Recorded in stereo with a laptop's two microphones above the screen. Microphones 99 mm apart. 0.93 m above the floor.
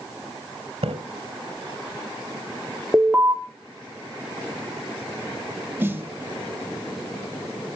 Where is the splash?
75° right (ahead or behind), 2.5 m.